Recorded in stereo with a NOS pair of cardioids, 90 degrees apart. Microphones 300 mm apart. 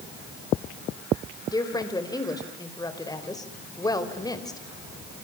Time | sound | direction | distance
1.5 | a woman speaking | 10° left | 4.5 m